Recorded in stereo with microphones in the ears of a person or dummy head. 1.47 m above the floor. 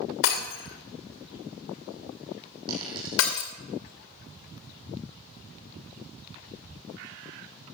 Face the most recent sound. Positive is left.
turn(degrees=-30)  # may be behind; listen again after turning